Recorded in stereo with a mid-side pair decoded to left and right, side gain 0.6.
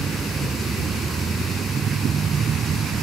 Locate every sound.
0.0 s a vehicle: 25° right; by 3.0 s 35° right